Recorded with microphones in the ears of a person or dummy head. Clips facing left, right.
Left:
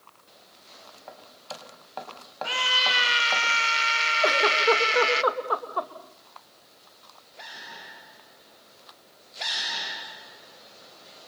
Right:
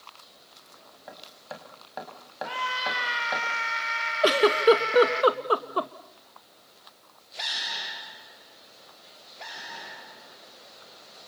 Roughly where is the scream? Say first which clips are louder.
Left 1 dB; left.